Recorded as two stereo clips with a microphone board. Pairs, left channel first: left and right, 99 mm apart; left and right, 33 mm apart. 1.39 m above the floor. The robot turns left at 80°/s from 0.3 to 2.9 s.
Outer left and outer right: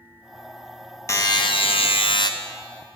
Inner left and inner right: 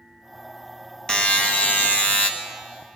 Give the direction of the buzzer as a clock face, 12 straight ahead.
7 o'clock.